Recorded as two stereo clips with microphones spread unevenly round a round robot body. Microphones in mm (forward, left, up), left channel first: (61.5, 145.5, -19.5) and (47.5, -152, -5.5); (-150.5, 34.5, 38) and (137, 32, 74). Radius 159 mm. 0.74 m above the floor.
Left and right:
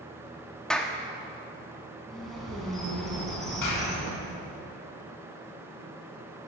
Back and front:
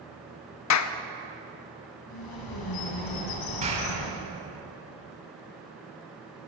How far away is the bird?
About 2 m.